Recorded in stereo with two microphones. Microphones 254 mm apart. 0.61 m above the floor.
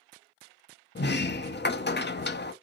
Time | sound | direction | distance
0.9 | a sliding door | 45° left (ahead or behind) | 0.6 m